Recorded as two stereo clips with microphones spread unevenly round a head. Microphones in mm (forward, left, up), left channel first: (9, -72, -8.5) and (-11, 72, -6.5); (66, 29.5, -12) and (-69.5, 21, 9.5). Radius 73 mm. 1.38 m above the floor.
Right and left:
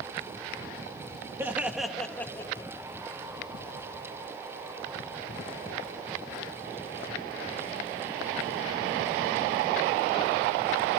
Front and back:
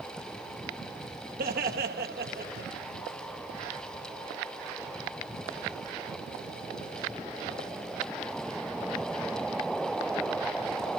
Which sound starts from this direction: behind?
Laughter, at 1.4 s.